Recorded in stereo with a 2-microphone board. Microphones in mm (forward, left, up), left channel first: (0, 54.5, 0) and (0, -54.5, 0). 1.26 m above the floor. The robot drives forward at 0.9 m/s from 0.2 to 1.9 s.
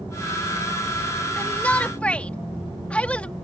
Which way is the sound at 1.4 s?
15° left (ahead or behind).